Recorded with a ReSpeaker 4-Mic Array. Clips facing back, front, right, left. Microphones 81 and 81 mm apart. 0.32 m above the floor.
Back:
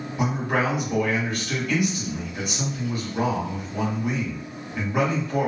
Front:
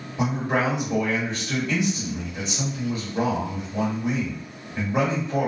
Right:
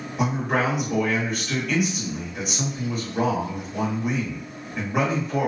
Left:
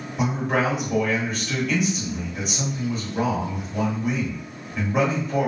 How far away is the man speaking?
About 1.4 m.